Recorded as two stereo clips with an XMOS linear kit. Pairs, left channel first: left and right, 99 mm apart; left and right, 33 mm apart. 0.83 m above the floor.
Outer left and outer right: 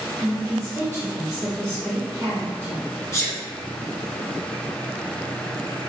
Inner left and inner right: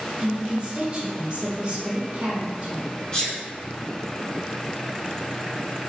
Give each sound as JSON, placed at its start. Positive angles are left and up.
{"t": 0.2, "sound": "a woman speaking", "side_deg": -30, "distance_m": 0.9}
{"t": 3.1, "sound": "a sneeze", "side_deg": 25, "distance_m": 0.7}